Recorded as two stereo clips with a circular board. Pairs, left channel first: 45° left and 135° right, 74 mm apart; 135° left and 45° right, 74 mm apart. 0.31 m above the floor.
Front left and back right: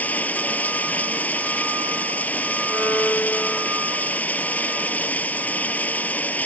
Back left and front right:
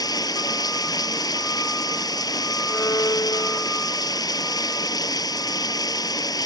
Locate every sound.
0.0 s running water: 110° left
2.7 s a violin: 100° left